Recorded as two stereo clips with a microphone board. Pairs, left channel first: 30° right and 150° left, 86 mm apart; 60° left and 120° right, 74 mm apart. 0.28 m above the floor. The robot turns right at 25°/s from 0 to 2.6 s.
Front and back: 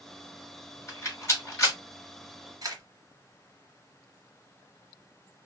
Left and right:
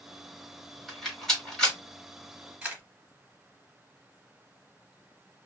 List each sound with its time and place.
0.9 s a rattle: 30° right, 1.5 m; by 1.8 s 5° right, 1.5 m
2.6 s a camera shutter: 170° left, 0.9 m